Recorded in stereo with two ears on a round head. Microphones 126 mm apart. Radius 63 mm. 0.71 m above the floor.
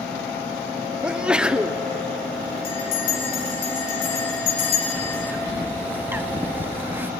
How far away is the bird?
About 0.9 m.